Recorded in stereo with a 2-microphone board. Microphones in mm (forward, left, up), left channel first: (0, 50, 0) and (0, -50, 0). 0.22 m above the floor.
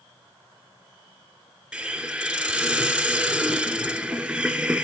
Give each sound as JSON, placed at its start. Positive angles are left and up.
{"t": 1.7, "sound": "a hiss", "side_deg": -15, "distance_m": 2.5}